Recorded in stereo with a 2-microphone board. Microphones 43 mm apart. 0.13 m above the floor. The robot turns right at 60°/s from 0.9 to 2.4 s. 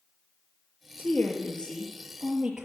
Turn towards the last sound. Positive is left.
turn(degrees=-160)